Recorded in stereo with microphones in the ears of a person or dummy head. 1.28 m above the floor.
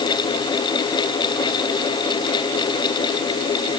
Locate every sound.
Only background noise.